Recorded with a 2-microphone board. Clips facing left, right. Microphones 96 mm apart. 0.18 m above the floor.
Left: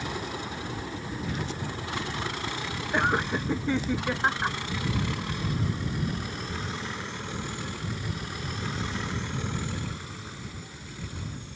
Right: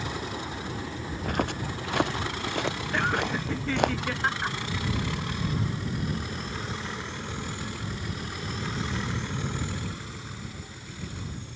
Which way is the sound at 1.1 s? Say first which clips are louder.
Right 6 dB; 55° right (ahead or behind).